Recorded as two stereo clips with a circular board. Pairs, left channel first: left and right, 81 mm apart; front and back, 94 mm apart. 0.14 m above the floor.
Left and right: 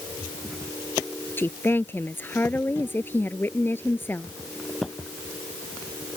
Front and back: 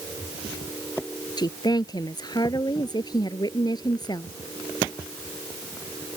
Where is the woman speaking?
30° left.